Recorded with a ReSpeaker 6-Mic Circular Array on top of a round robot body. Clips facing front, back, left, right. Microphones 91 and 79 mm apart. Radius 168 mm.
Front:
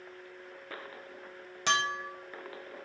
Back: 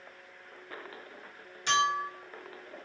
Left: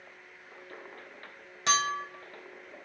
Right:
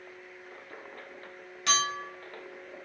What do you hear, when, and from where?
1.7 s a clink: 30° left, 0.6 m